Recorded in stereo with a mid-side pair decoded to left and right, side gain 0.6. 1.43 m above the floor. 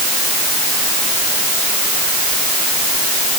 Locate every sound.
Only background noise.